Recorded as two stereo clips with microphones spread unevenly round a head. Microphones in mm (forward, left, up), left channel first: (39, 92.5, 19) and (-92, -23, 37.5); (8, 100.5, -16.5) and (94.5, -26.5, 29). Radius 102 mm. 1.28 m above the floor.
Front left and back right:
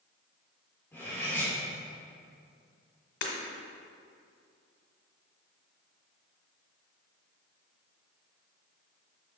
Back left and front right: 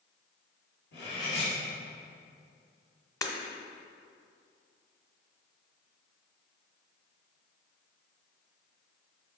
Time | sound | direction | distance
0.9 | cutlery clinking | 120° left | 2.5 m
3.2 | breaking glass | 45° left | 1.4 m